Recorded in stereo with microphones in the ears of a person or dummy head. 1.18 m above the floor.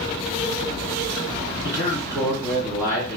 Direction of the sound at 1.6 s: 15° right (ahead or behind).